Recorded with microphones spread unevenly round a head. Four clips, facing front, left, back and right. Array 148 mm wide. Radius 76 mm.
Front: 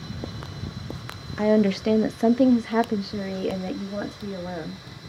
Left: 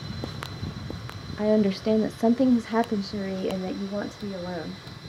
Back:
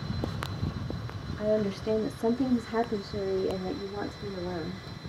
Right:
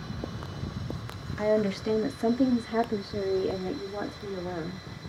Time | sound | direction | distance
1.4 | a woman speaking | 10° left | 0.9 m